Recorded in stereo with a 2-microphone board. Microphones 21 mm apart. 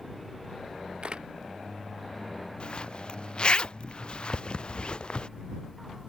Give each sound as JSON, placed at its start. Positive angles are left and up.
{"t": 1.0, "sound": "a camera shutter", "side_deg": -60}
{"t": 2.6, "sound": "a zipper", "side_deg": 55}